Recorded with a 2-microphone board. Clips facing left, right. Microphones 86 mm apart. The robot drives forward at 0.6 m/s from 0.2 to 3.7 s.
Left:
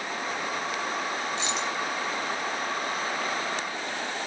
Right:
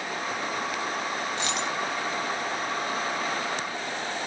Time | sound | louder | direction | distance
1.4 | a dropped coin | right 1 dB | 55° right (ahead or behind) | 0.9 m